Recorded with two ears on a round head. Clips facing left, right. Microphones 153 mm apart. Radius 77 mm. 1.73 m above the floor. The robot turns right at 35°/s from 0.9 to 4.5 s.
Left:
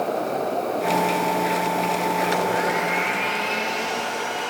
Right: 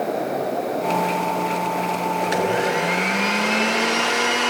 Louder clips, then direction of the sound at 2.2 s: Right 1 dB; 160° right.